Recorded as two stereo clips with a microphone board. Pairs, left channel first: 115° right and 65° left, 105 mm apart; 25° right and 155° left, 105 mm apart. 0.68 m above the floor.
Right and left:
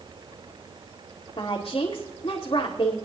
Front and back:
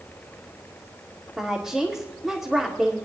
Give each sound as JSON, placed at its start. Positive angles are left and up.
{"t": 1.4, "sound": "a woman speaking", "azimuth_deg": -115, "distance_m": 2.0}